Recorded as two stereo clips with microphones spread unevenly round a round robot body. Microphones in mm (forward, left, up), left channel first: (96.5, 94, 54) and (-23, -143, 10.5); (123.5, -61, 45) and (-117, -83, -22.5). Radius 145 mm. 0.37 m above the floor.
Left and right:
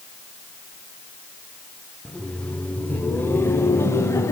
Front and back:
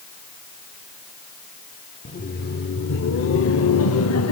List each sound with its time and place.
2.0 s laughter: 50° right, 1.0 m; by 4.3 s 20° right, 2 m